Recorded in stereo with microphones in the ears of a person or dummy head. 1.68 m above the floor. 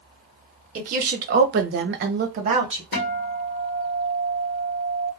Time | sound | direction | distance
0.8 | a woman speaking | 45° right (ahead or behind) | 0.9 m
2.9 | a guitar | 50° left (ahead or behind) | 1.2 m